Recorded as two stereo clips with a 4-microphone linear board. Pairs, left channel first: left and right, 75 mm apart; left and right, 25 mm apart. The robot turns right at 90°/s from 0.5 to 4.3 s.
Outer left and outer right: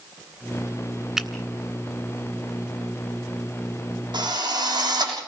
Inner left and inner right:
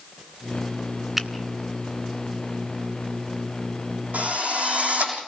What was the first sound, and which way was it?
A finger snap, 5° right (ahead or behind).